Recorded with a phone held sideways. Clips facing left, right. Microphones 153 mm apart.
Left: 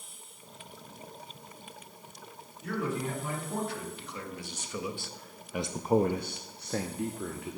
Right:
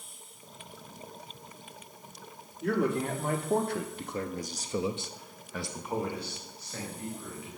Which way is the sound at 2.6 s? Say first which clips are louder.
Right 5 dB; 60° right (ahead or behind).